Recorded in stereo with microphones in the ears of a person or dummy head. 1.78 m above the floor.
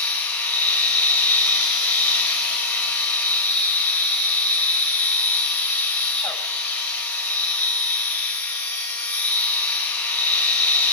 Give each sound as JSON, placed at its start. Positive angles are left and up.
{"t": 0.0, "sound": "a machine running", "side_deg": 10, "distance_m": 5.5}